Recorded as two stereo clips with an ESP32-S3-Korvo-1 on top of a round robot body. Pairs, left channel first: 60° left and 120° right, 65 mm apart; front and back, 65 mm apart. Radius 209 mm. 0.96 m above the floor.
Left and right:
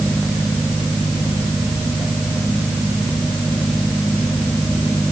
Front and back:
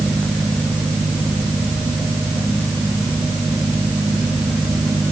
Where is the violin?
No violin in this recording.